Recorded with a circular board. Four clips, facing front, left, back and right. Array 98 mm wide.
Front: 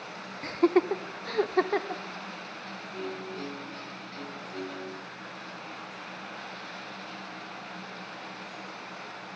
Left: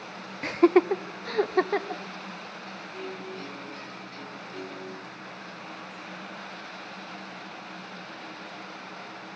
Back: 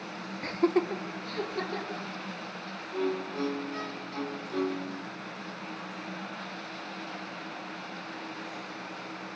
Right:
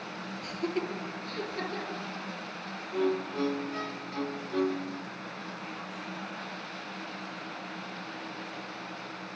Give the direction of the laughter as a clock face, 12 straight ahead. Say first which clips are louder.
Left 13 dB, front 3 dB; 9 o'clock.